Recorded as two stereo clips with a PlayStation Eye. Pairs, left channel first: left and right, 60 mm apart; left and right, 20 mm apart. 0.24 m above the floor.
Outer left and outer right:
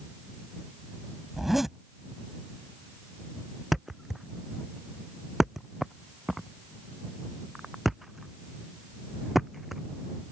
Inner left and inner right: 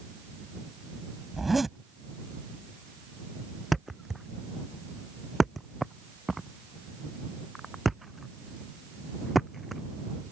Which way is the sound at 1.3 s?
5° right (ahead or behind).